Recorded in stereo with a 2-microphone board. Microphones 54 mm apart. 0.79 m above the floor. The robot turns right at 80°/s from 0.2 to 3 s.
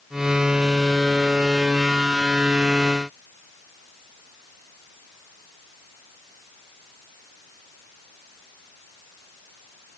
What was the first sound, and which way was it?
Only background noise.